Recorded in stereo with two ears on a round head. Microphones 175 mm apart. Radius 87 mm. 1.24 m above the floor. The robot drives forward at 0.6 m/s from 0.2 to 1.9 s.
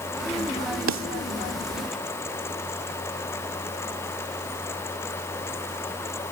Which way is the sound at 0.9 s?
70° right (ahead or behind).